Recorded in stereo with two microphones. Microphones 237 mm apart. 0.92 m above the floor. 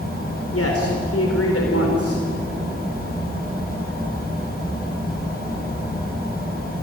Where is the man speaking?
75° left (ahead or behind), 4 m.